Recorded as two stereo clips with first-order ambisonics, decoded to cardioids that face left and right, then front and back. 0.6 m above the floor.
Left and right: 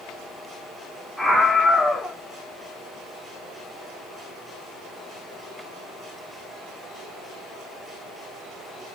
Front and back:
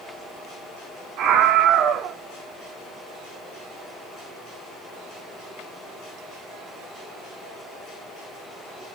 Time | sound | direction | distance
1.2 | a scream | 175° left | 1.2 m